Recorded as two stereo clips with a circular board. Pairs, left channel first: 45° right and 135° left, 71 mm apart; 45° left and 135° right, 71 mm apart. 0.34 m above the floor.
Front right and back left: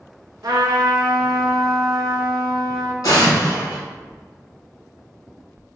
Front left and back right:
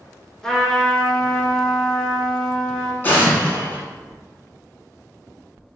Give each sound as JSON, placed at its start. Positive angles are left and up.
{"t": 0.4, "sound": "a trumpet", "azimuth_deg": 125, "distance_m": 0.7}
{"t": 3.0, "sound": "an explosion", "azimuth_deg": -15, "distance_m": 0.9}